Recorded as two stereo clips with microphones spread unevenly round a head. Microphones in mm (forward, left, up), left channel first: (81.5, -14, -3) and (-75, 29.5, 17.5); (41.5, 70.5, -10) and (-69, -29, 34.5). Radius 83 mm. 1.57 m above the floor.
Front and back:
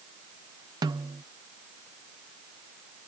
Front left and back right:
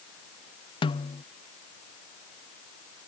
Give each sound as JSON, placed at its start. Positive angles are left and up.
{"t": 0.8, "sound": "a snare drum", "azimuth_deg": 95}